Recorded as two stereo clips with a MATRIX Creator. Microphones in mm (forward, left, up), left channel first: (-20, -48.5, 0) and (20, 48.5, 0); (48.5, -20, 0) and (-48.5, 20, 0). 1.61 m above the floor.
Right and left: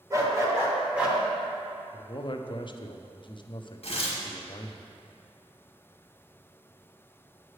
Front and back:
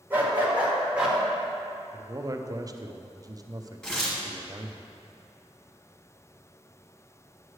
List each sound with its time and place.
0.1 s a dog barking: 100° left, 1.5 m; by 1.2 s 105° left, 1.2 m
1.9 s a man speaking: 150° right, 0.5 m
3.8 s tearing paper: 105° right, 1.4 m